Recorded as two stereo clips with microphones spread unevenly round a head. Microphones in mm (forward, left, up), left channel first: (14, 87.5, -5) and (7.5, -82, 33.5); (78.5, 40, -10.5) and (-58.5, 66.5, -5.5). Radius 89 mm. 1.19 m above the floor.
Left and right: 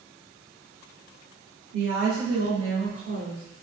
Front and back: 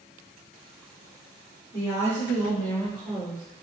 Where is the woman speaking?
70° right, 2 m; by 3.5 s 110° right, 3 m.